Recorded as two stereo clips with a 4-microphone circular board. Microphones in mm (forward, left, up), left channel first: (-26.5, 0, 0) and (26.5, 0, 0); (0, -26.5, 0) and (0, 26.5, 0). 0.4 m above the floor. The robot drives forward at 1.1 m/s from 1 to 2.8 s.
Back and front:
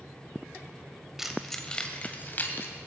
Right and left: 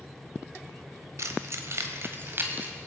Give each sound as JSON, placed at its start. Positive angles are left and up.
{"t": 1.2, "sound": "keys jangling", "azimuth_deg": 80, "distance_m": 1.4}